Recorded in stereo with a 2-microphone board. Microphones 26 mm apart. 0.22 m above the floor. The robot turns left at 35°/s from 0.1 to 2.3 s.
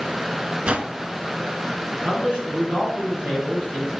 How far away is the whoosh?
About 0.6 m.